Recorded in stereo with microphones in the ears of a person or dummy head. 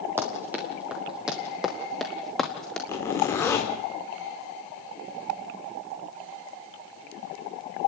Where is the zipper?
10° left (ahead or behind), 3.5 m.